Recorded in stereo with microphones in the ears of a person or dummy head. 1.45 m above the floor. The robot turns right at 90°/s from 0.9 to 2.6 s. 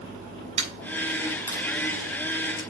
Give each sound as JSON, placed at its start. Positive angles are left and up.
{"t": 0.6, "sound": "a dropped coin", "side_deg": -35, "distance_m": 5.0}